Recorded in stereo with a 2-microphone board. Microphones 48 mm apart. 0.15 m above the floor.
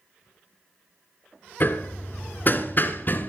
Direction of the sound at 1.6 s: 40° left (ahead or behind).